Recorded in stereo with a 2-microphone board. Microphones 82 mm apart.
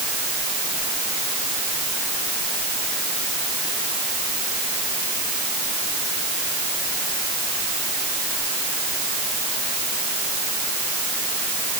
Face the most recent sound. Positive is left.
No sound to turn to.